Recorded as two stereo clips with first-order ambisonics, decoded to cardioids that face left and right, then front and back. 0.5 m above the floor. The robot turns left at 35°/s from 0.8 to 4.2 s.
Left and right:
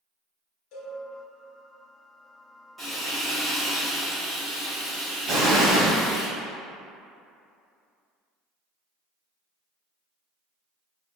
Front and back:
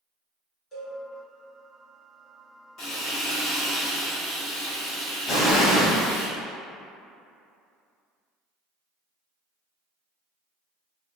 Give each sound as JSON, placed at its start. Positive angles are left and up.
{"t": 0.7, "sound": "a cowbell", "azimuth_deg": 65, "distance_m": 1.1}
{"t": 2.8, "sound": "frying", "azimuth_deg": -10, "distance_m": 1.5}
{"t": 5.3, "sound": "an explosion", "azimuth_deg": -70, "distance_m": 1.4}